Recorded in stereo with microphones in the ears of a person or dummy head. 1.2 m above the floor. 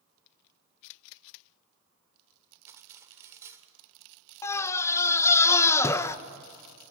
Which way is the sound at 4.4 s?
15° left (ahead or behind).